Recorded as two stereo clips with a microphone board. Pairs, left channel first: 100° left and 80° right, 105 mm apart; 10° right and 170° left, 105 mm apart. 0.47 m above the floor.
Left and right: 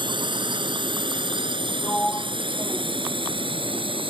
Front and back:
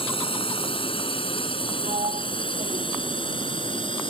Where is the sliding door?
Straight behind.